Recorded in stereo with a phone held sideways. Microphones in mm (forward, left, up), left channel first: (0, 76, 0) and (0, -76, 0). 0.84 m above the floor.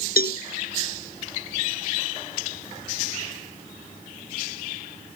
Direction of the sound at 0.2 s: 80° left.